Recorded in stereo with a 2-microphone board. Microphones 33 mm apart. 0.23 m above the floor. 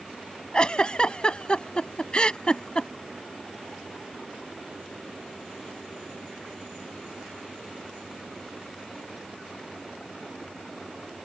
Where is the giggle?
35° left (ahead or behind).